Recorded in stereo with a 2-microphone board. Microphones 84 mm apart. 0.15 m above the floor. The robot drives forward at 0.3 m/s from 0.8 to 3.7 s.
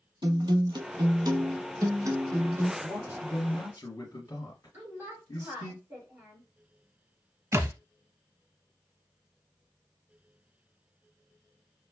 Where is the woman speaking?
20° right (ahead or behind), 3 m.